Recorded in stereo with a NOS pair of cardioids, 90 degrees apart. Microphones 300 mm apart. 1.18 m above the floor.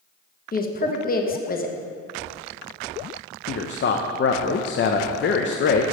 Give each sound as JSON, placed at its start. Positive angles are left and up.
{"t": 0.5, "sound": "a woman speaking", "azimuth_deg": 30, "distance_m": 1.0}
{"t": 3.5, "sound": "a man speaking", "azimuth_deg": 40, "distance_m": 0.7}